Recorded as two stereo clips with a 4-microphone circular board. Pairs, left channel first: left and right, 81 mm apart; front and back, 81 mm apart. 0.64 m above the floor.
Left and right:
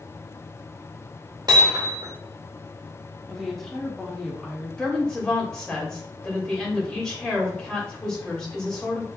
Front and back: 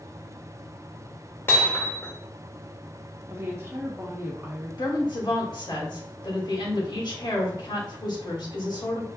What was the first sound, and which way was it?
Hammering, 60° right.